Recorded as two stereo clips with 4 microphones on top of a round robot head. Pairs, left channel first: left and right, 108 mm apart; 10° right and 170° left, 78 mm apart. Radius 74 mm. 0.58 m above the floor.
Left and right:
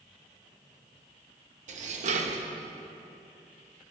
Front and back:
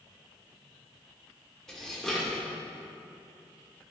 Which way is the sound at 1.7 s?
90° right.